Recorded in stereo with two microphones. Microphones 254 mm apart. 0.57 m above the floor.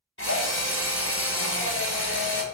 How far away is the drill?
About 0.7 m.